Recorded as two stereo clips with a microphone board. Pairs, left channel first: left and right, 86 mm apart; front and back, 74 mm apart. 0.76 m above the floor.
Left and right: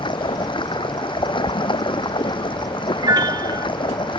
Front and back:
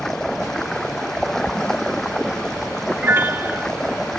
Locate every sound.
0.0 s running water: 80° left
3.0 s a piano: 125° right